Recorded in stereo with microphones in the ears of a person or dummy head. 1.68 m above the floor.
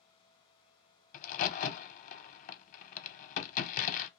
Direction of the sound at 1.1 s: 45° left (ahead or behind).